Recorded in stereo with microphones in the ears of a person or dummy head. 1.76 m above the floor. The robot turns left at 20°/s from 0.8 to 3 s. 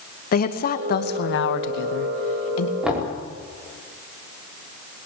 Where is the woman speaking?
125° left, 2.0 m; by 2.7 s 85° left, 2.0 m.